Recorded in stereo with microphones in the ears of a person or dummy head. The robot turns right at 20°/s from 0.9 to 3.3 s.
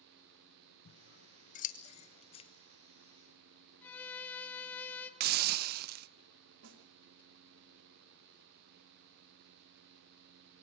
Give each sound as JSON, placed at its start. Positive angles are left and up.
{"t": 0.8, "sound": "scissors", "side_deg": 50, "distance_m": 0.9}
{"t": 3.8, "sound": "a violin", "side_deg": 10, "distance_m": 1.7}
{"t": 5.2, "sound": "a hiss", "side_deg": -55, "distance_m": 0.5}
{"t": 6.6, "sound": "a snare drum", "side_deg": -75, "distance_m": 2.5}